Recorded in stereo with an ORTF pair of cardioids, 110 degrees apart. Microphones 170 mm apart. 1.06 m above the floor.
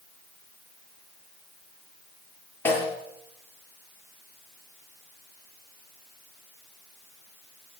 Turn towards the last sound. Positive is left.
turn(degrees=10)